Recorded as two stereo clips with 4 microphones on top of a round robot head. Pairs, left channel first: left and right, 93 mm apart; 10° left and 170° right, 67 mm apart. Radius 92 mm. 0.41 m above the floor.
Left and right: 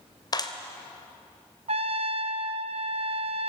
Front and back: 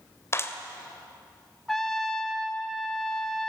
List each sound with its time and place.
0.3 s a clap: 50° left, 2 m
1.7 s a trumpet: 80° right, 0.8 m